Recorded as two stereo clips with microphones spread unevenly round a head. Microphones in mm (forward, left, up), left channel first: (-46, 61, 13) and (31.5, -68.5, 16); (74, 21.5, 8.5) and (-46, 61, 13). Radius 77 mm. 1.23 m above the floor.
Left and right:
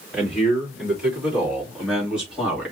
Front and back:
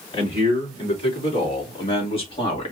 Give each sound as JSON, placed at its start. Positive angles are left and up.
{"t": 0.1, "sound": "a man speaking", "azimuth_deg": 25, "distance_m": 4.0}